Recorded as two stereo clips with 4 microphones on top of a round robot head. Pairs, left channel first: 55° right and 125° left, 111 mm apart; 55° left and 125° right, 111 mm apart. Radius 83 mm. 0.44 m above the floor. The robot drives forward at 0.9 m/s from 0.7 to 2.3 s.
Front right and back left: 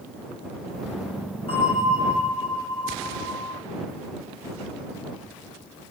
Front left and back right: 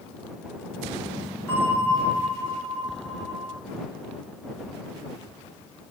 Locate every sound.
1.5 s a bell: 20° right, 7 m